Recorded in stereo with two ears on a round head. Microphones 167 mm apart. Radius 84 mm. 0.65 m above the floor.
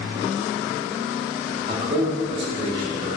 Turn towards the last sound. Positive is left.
turn(degrees=-20)  # may be behind; listen again after turning